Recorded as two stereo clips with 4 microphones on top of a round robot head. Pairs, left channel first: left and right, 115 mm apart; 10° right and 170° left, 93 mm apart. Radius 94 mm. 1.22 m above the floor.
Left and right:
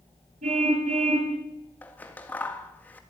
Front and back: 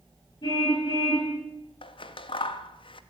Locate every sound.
0.4 s a car horn: 65° right, 10 m
1.8 s scissors: 10° left, 1.8 m